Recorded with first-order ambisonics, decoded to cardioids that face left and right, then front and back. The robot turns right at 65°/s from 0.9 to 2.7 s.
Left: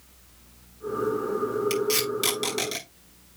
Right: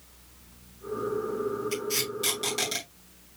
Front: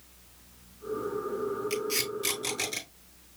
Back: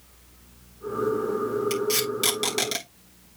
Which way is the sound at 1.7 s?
110° left.